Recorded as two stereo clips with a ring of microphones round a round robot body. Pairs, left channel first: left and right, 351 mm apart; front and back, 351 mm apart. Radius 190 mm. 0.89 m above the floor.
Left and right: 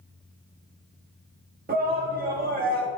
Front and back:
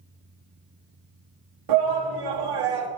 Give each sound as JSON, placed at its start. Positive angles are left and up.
{"t": 1.7, "sound": "a shout", "azimuth_deg": -155, "distance_m": 2.0}